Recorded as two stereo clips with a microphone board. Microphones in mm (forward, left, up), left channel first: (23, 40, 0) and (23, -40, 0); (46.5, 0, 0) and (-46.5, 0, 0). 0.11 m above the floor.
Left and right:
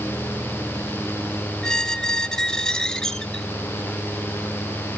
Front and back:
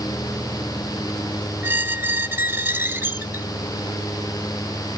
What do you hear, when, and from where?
1.6 s a squeak: 160° left, 0.5 m